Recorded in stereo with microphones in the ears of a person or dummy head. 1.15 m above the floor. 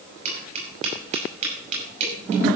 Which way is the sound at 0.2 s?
40° right (ahead or behind).